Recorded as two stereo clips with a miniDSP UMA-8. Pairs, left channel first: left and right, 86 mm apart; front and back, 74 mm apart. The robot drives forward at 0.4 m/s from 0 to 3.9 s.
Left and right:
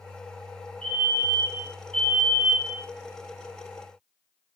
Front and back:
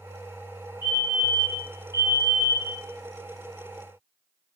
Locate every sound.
0.8 s a fire alarm: 15° left, 5.5 m